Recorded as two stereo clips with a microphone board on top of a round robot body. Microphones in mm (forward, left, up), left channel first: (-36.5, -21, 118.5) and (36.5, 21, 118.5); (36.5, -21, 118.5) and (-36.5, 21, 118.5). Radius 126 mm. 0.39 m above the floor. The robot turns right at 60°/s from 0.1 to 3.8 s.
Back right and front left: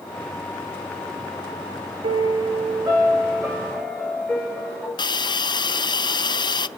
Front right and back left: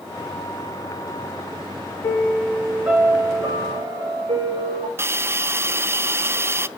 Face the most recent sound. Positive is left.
turn(degrees=-155)